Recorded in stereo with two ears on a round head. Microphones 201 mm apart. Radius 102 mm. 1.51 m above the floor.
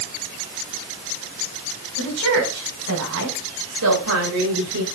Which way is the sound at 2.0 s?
80° right.